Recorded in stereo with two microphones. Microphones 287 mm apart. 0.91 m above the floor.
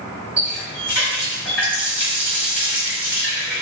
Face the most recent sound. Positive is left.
turn(degrees=-5)  # may be behind; listen again after turning